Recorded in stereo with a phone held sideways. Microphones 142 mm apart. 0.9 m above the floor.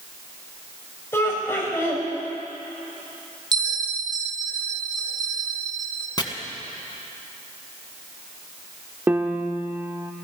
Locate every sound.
1.1 s laughter: 20° left (ahead or behind), 5 m
3.5 s a bell: 30° right (ahead or behind), 1.1 m
6.2 s chopping: 30° left (ahead or behind), 1.5 m
9.1 s a piano: 15° right (ahead or behind), 0.8 m